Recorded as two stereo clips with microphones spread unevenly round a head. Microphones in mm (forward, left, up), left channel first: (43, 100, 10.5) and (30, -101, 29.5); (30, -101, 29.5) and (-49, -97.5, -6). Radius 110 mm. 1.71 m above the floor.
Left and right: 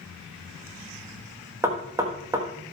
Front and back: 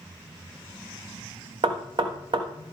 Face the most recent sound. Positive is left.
turn(degrees=-160)